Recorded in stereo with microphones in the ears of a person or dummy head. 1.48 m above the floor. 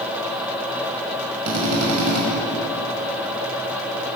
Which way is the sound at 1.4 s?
85° right.